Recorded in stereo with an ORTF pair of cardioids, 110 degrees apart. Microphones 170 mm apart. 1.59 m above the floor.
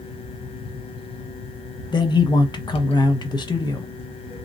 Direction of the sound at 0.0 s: 35° left.